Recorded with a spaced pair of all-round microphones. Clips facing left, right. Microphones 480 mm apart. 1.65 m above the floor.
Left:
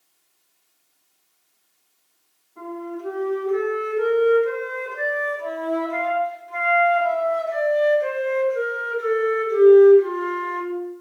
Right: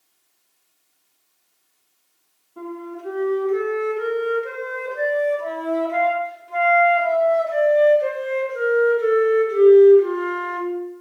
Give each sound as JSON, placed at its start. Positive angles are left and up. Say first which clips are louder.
{"t": 2.6, "sound": "a flute", "louder": "left 1 dB", "side_deg": -50, "distance_m": 0.7}